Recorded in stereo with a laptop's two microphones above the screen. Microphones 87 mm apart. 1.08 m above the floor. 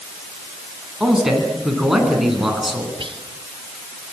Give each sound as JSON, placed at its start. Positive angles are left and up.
{"t": 1.0, "sound": "a man speaking", "side_deg": -5, "distance_m": 9.0}
{"t": 3.0, "sound": "whispering", "side_deg": -80, "distance_m": 1.5}